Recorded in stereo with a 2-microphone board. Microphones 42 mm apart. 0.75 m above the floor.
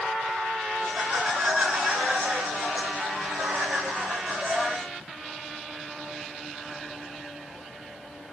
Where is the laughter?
45° right (ahead or behind), 7 m; by 4.9 s 50° right (ahead or behind), 5 m.